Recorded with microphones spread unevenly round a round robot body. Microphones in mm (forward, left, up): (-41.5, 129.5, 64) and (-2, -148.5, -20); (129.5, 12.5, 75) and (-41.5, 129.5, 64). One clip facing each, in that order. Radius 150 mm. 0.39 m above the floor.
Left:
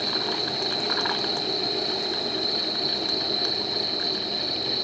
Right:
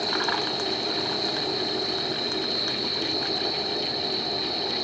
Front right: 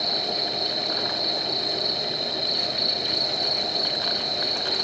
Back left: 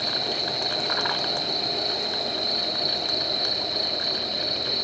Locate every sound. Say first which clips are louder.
0.0 s an insect: right 1 dB, front right 1 dB; 40° left, 2.5 m